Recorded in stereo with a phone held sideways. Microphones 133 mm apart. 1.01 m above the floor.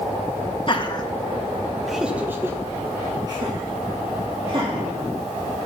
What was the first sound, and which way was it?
Laughter, 40° left (ahead or behind).